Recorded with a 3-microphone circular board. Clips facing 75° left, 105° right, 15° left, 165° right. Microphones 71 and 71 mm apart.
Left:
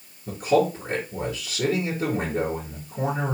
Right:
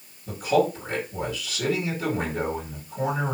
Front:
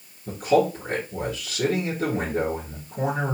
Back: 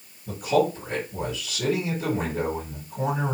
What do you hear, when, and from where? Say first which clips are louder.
0.3 s a man speaking: left 1 dB, front 2 dB; 15° left, 3 m